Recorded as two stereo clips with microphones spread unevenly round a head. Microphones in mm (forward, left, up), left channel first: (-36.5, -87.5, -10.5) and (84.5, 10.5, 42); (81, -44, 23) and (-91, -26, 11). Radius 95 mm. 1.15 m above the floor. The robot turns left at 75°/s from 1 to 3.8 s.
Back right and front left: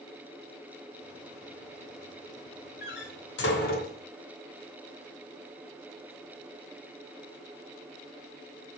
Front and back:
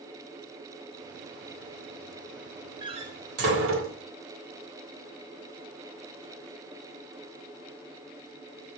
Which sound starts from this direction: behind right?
A door slam, at 2.8 s.